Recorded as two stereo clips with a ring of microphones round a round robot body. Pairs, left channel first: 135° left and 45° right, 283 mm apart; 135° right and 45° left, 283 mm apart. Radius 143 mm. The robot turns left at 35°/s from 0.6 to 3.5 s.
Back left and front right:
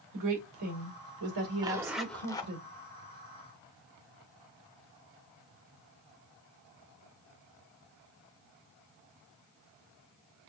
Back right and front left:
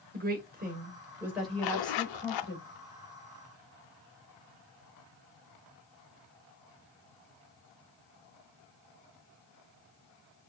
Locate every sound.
0.1 s a woman speaking: 15° right, 2.5 m; by 2.6 s 85° right, 2.5 m
1.6 s a zipper: 120° right, 0.6 m; by 2.5 s 155° right, 0.6 m